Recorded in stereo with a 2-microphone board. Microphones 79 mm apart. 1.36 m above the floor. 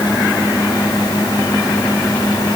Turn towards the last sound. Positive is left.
No sound to turn to.